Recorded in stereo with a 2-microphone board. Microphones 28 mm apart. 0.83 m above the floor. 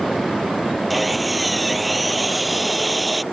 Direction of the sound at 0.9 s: 5° right (ahead or behind).